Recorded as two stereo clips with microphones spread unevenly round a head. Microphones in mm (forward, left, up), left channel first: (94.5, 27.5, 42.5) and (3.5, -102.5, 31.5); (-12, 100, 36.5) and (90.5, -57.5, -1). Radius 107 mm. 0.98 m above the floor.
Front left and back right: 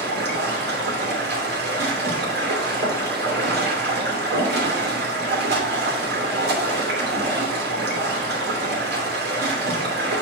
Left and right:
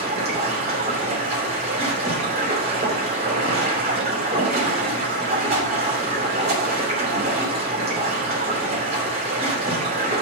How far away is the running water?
About 2.5 m.